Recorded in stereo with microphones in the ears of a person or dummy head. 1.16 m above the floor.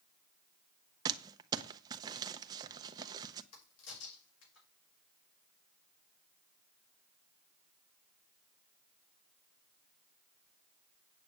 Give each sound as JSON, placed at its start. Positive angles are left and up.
{"t": 1.1, "sound": "crumpling", "side_deg": -20, "distance_m": 0.9}
{"t": 3.5, "sound": "a crack", "side_deg": 80, "distance_m": 6.0}